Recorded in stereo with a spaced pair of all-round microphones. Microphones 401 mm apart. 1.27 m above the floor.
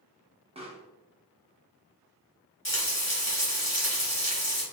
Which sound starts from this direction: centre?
A pop, at 0.6 s.